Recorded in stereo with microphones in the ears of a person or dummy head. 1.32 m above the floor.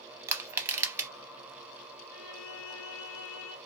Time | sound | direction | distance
0.3 | crushing | 15° right (ahead or behind) | 0.5 m
2.1 | a violin | 65° left (ahead or behind) | 0.8 m